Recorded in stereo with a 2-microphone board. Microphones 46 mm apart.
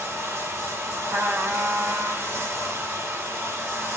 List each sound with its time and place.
0.0 s running water: 80° right, 8 m
1.1 s a trumpet: 70° right (ahead or behind), 2.5 m